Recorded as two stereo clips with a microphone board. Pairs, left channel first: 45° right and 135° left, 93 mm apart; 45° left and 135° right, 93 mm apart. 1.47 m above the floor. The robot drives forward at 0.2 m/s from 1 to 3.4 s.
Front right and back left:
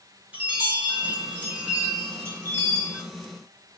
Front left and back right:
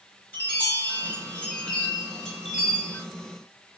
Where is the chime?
90° left, 0.9 m; by 3.0 s 140° left, 1.0 m.